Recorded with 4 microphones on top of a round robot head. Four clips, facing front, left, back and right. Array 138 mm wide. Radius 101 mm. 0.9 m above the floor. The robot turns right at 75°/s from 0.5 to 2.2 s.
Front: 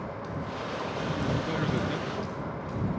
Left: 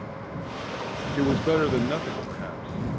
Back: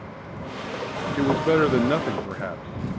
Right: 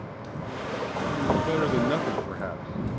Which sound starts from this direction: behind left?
A man speaking, at 1.2 s.